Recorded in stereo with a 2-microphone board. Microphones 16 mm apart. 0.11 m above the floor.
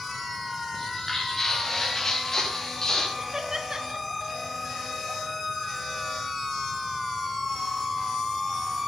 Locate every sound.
0.7 s footsteps: 15° left (ahead or behind), 5 m; by 3.1 s 30° left (ahead or behind), 4.5 m
3.2 s laughter: 30° right (ahead or behind), 1.2 m